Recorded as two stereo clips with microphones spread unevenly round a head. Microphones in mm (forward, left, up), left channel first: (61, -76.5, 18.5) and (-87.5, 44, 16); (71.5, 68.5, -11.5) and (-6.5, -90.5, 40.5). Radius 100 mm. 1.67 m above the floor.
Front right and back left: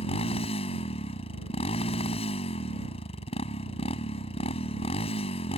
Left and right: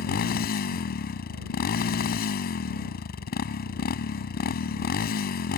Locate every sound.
0.0 s a motorcycle: 25° left